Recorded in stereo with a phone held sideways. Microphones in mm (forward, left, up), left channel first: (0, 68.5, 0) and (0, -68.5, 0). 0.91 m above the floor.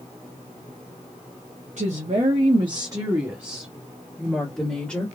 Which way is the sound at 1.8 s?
60° right (ahead or behind).